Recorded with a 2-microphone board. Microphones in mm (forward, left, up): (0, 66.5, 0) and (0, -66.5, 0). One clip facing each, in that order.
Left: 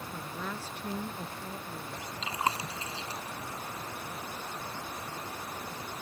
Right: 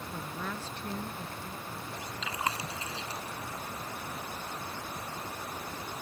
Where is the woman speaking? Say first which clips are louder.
Right 1 dB; 5° right (ahead or behind); by 2.1 s 30° left (ahead or behind).